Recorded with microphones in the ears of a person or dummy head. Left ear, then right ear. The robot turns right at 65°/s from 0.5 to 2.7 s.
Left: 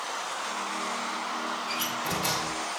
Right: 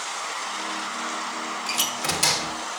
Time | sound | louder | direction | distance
1.7 | a door slam | right 8 dB | 95° right | 3 m